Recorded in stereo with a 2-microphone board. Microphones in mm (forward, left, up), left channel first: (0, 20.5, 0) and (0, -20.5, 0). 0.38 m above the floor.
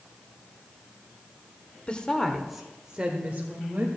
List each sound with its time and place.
1.9 s a woman speaking: 25° left (ahead or behind), 1.2 m; by 3.9 s 45° right (ahead or behind), 1.9 m